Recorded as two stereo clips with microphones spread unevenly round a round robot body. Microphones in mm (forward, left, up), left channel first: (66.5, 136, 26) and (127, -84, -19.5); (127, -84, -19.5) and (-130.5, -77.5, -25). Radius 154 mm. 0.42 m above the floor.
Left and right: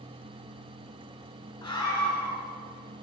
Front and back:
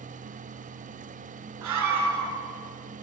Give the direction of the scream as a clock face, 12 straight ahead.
6 o'clock.